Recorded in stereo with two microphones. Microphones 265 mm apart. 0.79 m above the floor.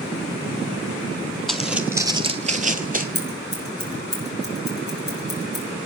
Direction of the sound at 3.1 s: 40° left (ahead or behind).